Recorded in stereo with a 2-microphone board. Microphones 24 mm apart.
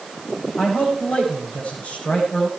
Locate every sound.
0.6 s a man speaking: 75° left (ahead or behind), 9 m